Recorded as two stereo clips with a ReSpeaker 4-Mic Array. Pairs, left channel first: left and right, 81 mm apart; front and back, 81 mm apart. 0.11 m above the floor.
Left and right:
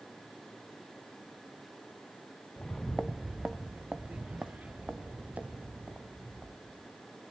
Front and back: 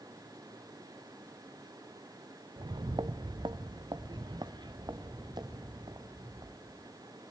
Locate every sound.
2.6 s footsteps: 170° left, 0.6 m; by 6.9 s 155° right, 3 m